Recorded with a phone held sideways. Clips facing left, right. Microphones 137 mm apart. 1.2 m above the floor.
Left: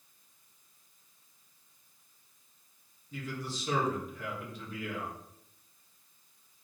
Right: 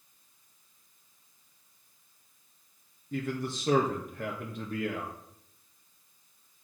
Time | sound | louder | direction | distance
3.1 | a man speaking | right 6 dB | 60° right (ahead or behind) | 1.6 m